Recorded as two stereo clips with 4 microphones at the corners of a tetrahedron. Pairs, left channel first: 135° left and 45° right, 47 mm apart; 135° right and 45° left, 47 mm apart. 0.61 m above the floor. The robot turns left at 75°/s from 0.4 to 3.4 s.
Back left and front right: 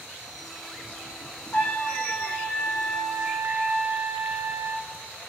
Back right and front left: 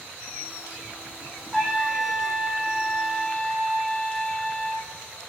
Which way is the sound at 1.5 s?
140° left.